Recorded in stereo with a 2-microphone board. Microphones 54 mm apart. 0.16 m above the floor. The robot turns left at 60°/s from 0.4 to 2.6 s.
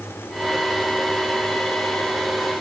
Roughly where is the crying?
I don't hear crying.